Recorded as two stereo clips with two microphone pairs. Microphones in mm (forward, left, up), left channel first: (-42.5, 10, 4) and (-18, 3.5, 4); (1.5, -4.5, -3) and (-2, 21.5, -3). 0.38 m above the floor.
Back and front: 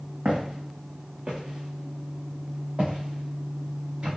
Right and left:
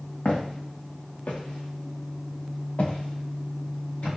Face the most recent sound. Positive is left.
turn(degrees=-65)